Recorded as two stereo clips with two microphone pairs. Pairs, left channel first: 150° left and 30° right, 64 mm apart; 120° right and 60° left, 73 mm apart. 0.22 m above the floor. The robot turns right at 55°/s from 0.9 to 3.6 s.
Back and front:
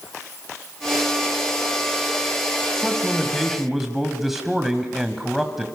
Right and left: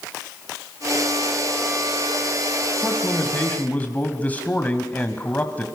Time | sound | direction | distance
2.8 | a man speaking | 155° right | 1.7 m